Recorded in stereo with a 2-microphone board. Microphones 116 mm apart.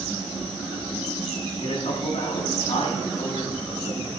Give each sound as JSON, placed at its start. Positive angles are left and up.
{"t": 1.6, "sound": "a man speaking", "side_deg": 65, "distance_m": 8.0}